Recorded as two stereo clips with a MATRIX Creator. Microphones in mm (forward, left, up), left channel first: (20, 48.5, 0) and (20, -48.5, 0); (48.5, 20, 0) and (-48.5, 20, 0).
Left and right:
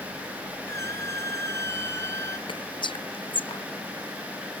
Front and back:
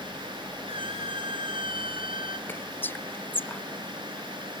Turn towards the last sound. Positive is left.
turn(degrees=65)